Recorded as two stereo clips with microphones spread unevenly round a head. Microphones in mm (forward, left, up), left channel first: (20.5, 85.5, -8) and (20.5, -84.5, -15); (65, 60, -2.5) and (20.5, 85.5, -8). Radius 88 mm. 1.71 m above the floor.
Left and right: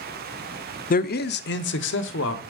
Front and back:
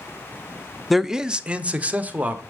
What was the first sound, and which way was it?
A man speaking, 60° left.